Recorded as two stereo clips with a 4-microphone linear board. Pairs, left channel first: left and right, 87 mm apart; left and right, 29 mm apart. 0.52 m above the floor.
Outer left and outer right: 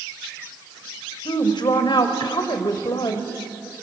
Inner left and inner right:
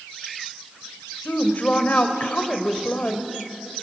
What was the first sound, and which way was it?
A woman speaking, 55° left (ahead or behind).